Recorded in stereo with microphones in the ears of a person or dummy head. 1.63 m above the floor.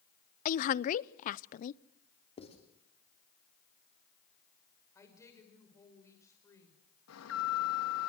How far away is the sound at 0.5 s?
About 0.6 m.